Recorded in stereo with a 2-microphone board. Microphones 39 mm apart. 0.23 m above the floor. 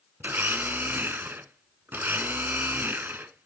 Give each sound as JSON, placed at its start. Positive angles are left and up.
{"t": 0.2, "sound": "a blender", "side_deg": -70, "distance_m": 0.8}